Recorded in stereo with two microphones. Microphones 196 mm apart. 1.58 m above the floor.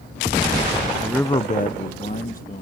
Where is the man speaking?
5° right (ahead or behind); by 2.6 s 45° left (ahead or behind).